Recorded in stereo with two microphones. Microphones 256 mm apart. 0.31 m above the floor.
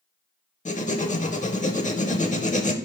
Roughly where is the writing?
Left.